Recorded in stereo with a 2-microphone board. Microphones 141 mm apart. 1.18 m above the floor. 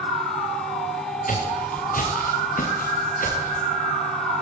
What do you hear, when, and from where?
1.3 s footsteps: 75° left (ahead or behind), 5.5 m; by 3.7 s 80° left, 8 m